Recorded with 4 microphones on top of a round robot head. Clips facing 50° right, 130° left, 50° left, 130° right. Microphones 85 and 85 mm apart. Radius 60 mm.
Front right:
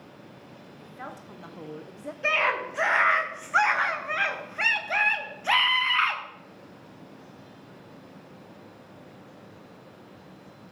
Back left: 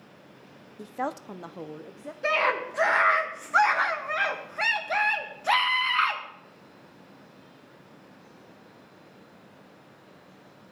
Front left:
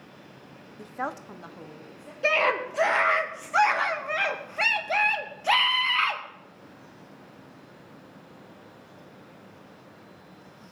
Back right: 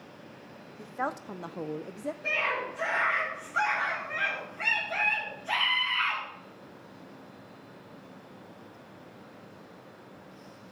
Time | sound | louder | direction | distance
0.8 | a woman speaking | back left 10 dB, even | 125° left | 0.7 m
2.2 | a scream | back left 1 dB, front left 9 dB | 55° left | 2.5 m